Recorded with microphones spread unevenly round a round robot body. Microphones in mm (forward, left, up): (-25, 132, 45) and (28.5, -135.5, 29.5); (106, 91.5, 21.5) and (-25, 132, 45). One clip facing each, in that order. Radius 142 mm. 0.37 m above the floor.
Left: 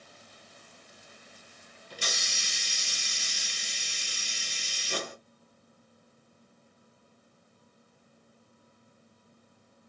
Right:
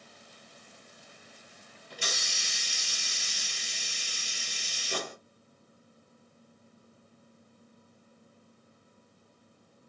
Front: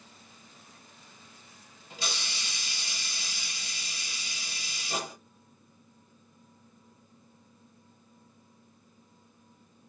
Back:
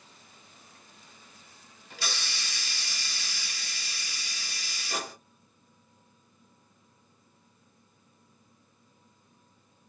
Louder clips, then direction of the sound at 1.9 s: Even, even; 50° left.